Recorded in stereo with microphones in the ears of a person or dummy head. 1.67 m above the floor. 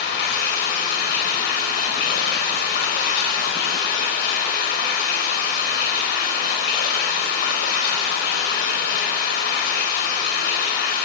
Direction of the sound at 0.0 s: 55° left (ahead or behind).